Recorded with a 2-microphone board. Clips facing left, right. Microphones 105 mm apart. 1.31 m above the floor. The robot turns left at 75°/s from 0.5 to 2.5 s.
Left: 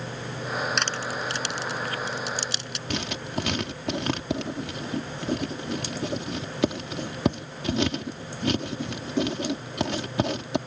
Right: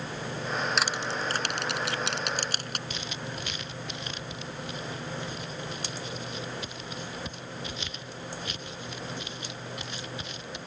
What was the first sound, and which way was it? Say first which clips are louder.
Crushing: left 1 dB; centre (ahead or behind).